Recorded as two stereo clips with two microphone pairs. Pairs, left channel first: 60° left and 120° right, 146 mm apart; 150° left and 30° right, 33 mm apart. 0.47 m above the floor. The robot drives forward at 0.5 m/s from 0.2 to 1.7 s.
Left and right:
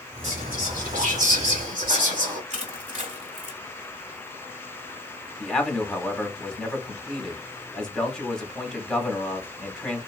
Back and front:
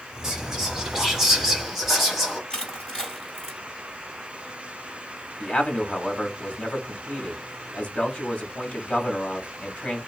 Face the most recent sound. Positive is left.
turn(degrees=140)